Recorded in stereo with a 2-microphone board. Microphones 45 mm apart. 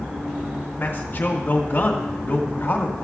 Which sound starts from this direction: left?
A man speaking, at 0.8 s.